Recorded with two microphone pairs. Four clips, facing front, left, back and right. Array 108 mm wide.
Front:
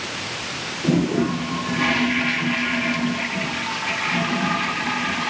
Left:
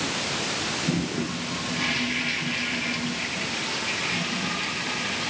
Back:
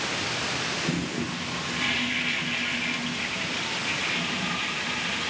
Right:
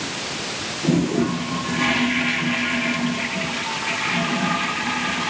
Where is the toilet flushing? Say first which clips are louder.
Right 10 dB, front 14 dB; 40° right.